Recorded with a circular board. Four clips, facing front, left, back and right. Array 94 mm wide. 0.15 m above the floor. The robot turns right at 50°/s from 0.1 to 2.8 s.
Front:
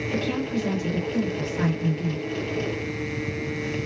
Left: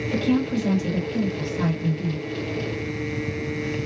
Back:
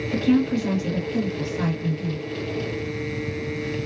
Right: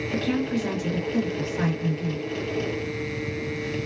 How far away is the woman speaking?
About 1.8 m.